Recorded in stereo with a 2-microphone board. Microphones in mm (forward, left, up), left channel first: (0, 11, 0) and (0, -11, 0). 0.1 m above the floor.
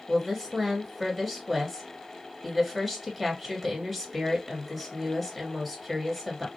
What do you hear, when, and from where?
0.1 s a woman speaking: centre (ahead or behind), 1.8 m